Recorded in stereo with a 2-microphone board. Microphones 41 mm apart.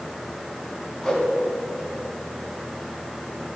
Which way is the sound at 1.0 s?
15° left (ahead or behind).